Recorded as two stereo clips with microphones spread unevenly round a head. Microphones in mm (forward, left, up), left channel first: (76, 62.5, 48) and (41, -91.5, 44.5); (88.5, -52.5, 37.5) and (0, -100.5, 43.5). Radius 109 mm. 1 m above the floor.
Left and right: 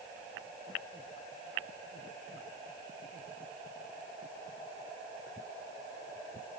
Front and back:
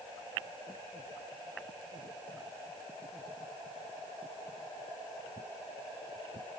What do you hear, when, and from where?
Only background noise.